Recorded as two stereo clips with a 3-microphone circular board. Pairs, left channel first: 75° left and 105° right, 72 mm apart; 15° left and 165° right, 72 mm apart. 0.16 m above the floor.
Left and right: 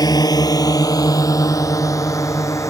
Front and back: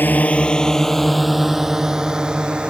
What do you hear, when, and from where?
0.0 s a drone: 75° left; by 2.7 s 120° left